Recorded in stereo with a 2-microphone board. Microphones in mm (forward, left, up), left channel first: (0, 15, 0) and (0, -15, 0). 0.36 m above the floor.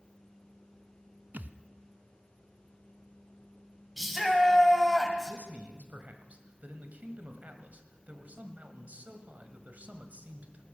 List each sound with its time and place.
1.3 s a thud: 70° right (ahead or behind), 0.5 m
4.0 s a shout: 5° right (ahead or behind), 2.5 m
5.3 s a man speaking: 55° right (ahead or behind), 1.7 m